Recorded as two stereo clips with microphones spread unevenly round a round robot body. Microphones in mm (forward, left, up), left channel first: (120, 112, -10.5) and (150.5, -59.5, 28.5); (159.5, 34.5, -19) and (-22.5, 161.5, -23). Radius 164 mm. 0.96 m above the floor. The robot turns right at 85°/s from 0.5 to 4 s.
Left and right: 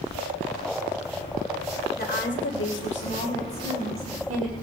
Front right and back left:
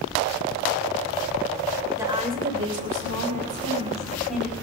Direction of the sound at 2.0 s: 65° left.